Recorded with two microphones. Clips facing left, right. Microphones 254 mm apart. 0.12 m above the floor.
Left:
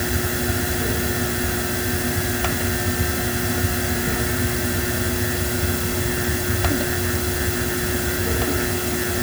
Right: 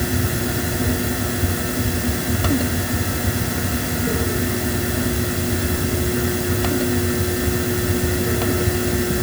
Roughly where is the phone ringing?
No phone ringing in this recording.